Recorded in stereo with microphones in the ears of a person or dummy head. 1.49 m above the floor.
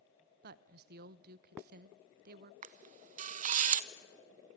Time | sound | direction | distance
0.4 | a woman speaking | 60° right (ahead or behind) | 0.8 m
2.6 | a camera shutter | 45° right (ahead or behind) | 0.6 m